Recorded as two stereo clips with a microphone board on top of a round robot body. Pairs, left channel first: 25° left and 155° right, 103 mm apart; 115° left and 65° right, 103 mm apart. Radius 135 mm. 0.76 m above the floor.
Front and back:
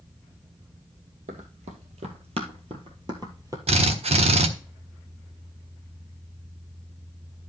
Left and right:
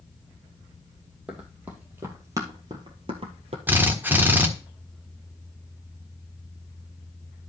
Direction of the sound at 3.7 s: 140° right.